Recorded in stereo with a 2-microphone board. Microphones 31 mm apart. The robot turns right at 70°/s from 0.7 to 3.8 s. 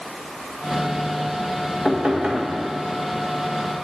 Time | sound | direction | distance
1.9 | knocking | 130° right | 1.8 m